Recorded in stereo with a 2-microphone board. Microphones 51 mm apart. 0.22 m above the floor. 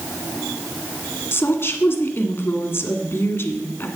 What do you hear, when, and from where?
1.3 s a woman speaking: 55° left (ahead or behind), 1.7 m